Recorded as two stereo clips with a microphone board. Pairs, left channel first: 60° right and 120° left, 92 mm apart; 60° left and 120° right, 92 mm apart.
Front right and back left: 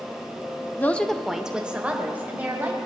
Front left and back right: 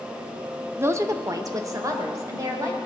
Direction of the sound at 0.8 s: 100° right.